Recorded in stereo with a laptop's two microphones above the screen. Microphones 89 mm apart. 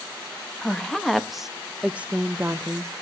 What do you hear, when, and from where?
0.6 s a woman speaking: 5° left (ahead or behind), 1.5 m; by 2.9 s 35° right (ahead or behind), 1.0 m